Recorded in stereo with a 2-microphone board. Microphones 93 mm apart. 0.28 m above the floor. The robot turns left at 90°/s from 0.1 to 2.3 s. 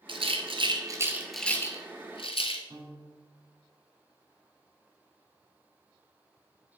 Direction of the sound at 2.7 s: 65° right (ahead or behind).